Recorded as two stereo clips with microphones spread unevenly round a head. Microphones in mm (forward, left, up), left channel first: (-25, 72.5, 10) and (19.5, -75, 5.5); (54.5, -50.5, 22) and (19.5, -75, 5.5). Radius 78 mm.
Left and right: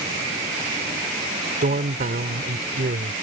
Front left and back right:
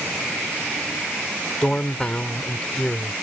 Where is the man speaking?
30° right.